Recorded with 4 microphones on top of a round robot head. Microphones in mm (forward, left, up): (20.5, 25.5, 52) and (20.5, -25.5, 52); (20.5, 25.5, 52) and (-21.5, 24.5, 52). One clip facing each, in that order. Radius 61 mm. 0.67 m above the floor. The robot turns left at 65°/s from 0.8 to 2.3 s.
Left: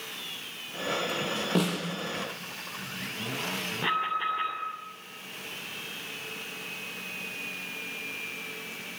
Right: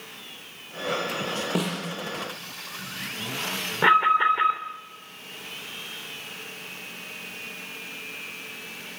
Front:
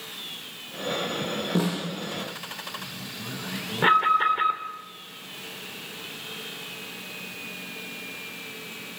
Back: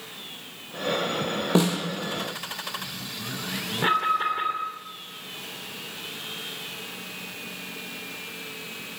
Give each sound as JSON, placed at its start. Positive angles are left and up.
{"t": 1.6, "sound": "a snare drum", "azimuth_deg": -175, "distance_m": 7.0}
{"t": 3.8, "sound": "an alarm", "azimuth_deg": -60, "distance_m": 3.0}